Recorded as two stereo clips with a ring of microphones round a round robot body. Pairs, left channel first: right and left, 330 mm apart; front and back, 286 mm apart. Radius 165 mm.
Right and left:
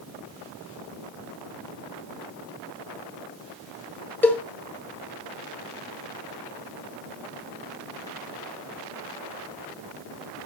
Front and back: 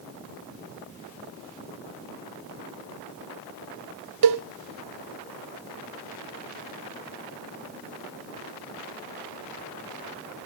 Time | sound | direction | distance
4.2 | a cowbell | 175° right | 0.8 m